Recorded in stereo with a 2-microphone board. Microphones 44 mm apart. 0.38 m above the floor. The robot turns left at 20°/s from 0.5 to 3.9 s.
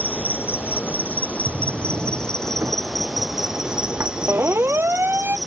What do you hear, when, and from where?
0.0 s an insect: 55° left; by 5.5 s 15° right
1.5 s a drawer: 75° right (ahead or behind); by 4.1 s 60° right (ahead or behind)
4.3 s a siren: 60° right (ahead or behind); by 5.4 s 55° right (ahead or behind)